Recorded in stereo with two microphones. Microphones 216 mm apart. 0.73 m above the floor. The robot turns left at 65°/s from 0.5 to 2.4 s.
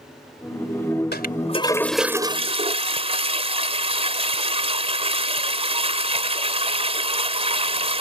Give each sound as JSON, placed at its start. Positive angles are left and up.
{"t": 1.1, "sound": "a toilet flushing", "azimuth_deg": 55}